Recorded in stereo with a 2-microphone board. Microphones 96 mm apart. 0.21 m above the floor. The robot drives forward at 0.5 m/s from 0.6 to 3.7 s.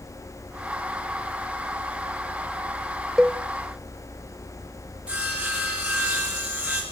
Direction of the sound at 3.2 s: 5° right (ahead or behind).